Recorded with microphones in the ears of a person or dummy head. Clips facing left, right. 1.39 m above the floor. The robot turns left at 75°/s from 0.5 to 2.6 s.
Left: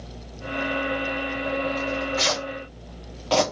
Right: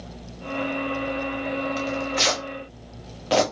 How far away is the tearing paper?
About 0.9 m.